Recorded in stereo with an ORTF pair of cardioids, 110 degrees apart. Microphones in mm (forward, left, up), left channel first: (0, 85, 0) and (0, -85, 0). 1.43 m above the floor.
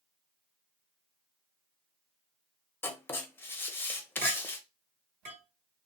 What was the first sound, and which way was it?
Writing, 15° left.